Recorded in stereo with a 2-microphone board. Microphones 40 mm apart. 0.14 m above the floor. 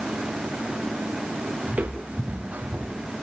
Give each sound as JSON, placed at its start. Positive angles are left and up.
{"t": 1.7, "sound": "footsteps", "side_deg": -40, "distance_m": 4.0}